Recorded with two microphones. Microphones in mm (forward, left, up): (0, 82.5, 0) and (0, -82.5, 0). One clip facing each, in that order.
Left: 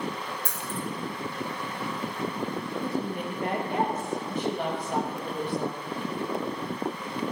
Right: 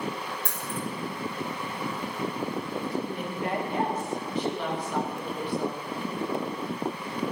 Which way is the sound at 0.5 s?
65° right (ahead or behind).